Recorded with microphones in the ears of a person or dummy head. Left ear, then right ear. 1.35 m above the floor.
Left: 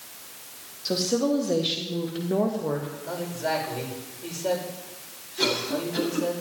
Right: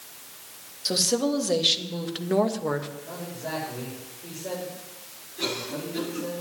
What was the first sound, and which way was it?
A woman speaking, 25° right (ahead or behind).